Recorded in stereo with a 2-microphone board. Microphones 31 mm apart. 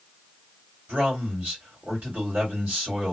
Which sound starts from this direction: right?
A man speaking, at 0.9 s.